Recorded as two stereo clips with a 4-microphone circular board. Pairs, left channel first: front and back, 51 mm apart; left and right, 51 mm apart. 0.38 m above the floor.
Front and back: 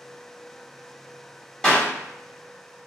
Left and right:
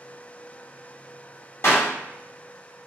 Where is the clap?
70° left, 1.5 m.